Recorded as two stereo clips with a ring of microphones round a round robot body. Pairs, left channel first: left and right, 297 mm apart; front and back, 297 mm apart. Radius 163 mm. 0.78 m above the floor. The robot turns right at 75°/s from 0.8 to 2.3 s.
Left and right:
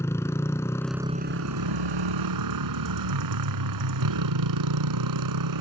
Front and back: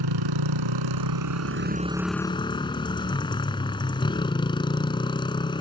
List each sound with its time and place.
0.0 s a motorcycle: 170° left; by 5.6 s 75° right